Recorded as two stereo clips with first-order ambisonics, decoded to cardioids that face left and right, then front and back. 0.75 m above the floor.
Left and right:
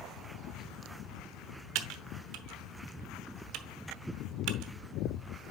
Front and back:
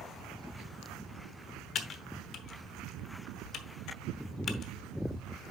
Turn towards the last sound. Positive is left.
turn(degrees=-55)